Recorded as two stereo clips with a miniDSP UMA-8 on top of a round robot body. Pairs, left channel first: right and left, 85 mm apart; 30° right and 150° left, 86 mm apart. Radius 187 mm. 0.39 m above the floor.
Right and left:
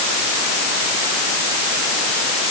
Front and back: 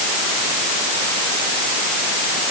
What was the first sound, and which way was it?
Only background noise.